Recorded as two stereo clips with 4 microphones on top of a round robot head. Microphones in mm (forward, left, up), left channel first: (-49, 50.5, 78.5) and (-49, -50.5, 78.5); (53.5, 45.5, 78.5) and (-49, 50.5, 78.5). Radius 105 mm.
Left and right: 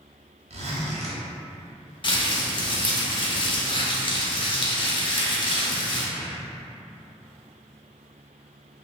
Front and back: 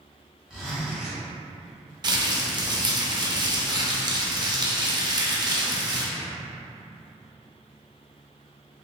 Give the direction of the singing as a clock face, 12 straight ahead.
I don't hear singing.